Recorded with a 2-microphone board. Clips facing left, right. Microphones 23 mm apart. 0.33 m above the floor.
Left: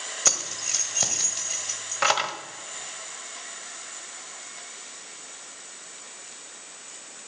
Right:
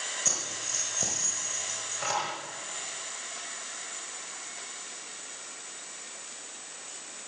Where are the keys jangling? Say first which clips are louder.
Left 9 dB; 50° left (ahead or behind), 1.1 m.